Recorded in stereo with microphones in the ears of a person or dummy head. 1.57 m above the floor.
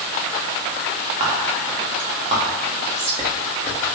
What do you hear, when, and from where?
1.2 s whispering: 35° right (ahead or behind), 1.8 m